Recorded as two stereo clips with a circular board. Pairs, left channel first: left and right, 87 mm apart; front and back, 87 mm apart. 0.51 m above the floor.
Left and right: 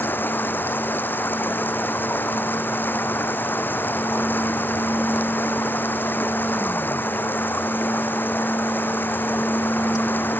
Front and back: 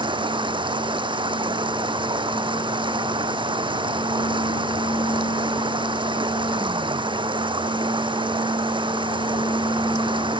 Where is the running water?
160° left.